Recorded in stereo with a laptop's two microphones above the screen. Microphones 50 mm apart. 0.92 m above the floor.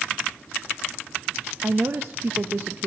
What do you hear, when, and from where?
1.6 s a woman speaking: 50° right (ahead or behind), 0.8 m